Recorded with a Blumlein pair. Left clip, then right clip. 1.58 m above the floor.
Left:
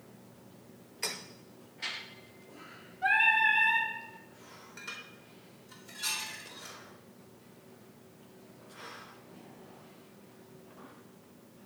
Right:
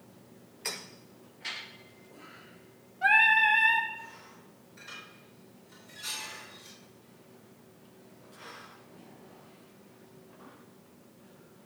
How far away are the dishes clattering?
About 3.5 m.